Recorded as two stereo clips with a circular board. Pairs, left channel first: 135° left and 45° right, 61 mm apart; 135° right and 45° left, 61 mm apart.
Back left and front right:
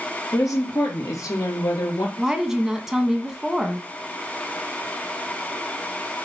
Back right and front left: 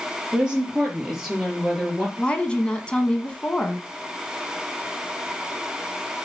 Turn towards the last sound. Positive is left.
turn(degrees=-110)